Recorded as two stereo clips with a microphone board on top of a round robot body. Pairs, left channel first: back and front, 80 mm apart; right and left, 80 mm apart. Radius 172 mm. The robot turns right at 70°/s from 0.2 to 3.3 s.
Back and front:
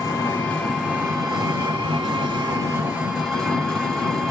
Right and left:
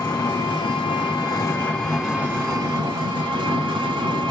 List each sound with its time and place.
0.0 s an engine running: 125° right, 1.7 m; by 4.3 s 90° left, 1.7 m